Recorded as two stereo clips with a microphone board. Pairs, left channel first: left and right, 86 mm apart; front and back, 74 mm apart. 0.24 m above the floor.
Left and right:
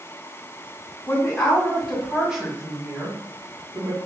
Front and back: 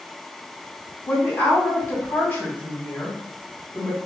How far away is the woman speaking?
About 1.9 m.